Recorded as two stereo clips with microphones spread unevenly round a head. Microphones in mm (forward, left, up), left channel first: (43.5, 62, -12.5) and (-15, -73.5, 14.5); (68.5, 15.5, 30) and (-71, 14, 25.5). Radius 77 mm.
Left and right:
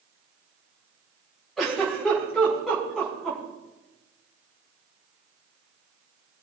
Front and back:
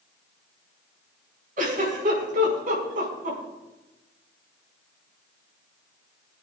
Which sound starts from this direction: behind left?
A giggle, at 1.6 s.